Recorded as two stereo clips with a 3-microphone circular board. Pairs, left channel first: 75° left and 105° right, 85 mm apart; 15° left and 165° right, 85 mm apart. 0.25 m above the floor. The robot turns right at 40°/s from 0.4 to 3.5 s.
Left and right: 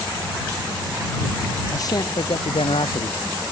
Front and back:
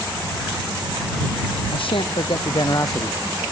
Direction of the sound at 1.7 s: 20° left.